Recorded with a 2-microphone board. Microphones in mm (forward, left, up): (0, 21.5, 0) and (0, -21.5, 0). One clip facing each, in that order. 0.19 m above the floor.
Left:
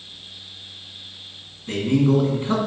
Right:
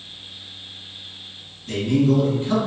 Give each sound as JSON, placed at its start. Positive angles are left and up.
{"t": 1.7, "sound": "a man speaking", "side_deg": 30, "distance_m": 1.6}